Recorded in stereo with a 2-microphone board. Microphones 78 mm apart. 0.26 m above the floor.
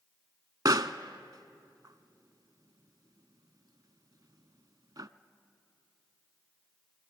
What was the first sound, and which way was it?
A pop, 55° right (ahead or behind).